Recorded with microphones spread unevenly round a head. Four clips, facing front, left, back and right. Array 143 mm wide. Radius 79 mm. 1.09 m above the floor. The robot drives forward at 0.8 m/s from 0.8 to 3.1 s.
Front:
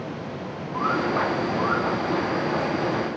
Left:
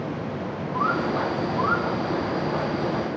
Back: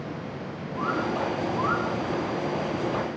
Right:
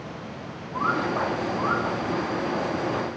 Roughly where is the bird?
Left.